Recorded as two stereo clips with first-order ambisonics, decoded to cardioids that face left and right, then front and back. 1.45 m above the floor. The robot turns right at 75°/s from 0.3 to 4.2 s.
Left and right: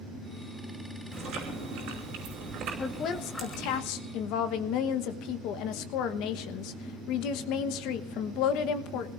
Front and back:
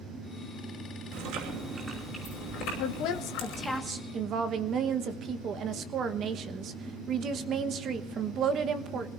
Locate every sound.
1.1 s chewing: 155° right, 5.5 m; by 3.8 s 45° left, 5.5 m
2.8 s a woman speaking: 15° left, 1.1 m; by 9.1 s 120° left, 1.1 m